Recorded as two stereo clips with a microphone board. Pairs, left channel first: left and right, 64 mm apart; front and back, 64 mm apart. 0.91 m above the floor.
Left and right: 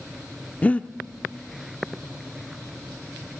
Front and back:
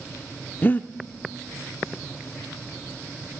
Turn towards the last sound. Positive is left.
turn(degrees=40)